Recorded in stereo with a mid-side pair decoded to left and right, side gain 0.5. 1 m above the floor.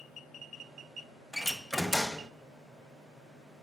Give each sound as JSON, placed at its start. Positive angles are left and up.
{"t": 1.3, "sound": "a door slam", "azimuth_deg": 5, "distance_m": 0.5}